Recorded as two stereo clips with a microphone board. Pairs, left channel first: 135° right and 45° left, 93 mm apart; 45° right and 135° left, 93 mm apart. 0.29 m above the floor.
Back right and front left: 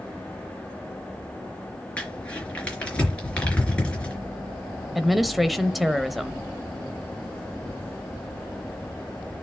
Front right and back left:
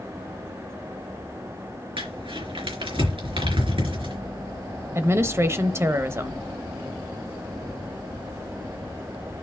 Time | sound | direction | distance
2.0 | crumpling | 150° left | 3.5 m
5.0 | a woman speaking | 135° left | 0.9 m